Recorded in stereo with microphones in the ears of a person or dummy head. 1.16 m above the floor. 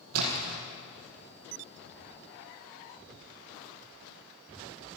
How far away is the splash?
About 6 m.